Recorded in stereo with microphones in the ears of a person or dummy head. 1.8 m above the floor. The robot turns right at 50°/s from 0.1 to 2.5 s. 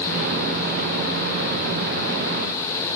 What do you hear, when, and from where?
Only background noise.